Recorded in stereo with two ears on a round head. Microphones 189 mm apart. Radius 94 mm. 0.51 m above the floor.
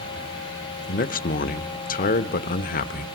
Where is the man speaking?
40° left (ahead or behind), 1.1 m.